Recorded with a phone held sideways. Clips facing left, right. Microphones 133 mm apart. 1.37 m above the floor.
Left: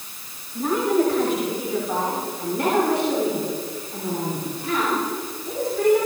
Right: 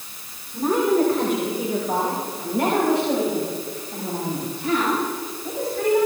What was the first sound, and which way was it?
A woman speaking, 50° right (ahead or behind).